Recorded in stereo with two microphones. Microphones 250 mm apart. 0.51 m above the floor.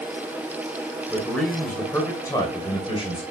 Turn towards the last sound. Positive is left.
turn(degrees=25)  # may be behind; listen again after turning